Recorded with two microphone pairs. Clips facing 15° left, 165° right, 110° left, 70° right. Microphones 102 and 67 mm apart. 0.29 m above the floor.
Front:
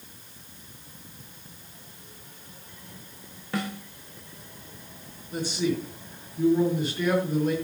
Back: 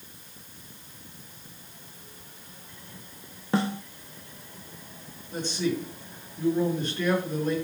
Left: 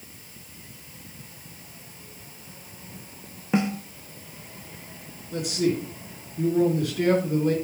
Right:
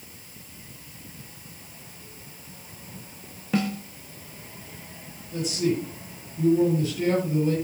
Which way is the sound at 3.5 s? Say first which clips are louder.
Back 5 dB, left 2 dB; 155° left.